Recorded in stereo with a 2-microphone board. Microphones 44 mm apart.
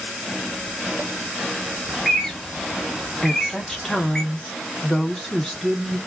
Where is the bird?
10° left (ahead or behind), 0.8 m.